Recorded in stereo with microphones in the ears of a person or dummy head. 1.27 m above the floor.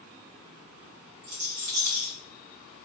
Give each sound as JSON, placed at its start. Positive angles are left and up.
{"t": 1.2, "sound": "a rattle", "side_deg": -60, "distance_m": 1.1}